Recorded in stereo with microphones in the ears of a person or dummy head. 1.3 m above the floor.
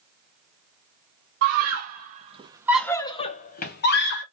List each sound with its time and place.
1.4 s a scream: 55° right (ahead or behind), 1.2 m; by 4.2 s 60° left (ahead or behind), 1.2 m